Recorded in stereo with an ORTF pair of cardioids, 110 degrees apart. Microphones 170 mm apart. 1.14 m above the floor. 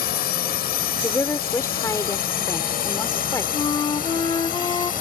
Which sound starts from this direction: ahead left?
A flute, at 3.5 s.